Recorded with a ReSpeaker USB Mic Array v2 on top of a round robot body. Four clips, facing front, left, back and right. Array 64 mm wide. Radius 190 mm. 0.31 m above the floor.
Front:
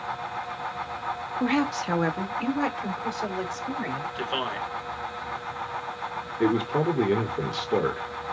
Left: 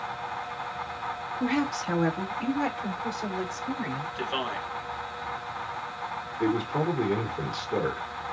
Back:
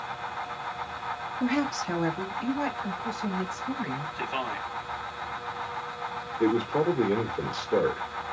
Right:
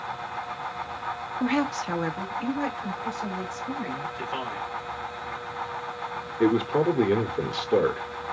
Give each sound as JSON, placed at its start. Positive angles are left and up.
{"t": 1.4, "sound": "a woman speaking", "azimuth_deg": -35, "distance_m": 1.3}
{"t": 4.2, "sound": "a man speaking", "azimuth_deg": 15, "distance_m": 3.5}
{"t": 6.4, "sound": "a man speaking", "azimuth_deg": -65, "distance_m": 1.7}